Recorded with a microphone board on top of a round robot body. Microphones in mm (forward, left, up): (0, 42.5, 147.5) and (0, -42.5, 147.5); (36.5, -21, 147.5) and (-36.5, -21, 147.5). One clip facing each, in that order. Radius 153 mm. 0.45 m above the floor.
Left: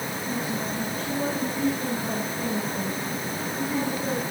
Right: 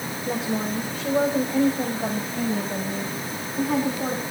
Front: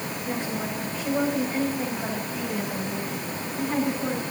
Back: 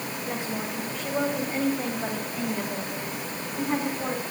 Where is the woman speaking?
95° right, 2.5 m; by 4.2 s 105° right, 4.5 m.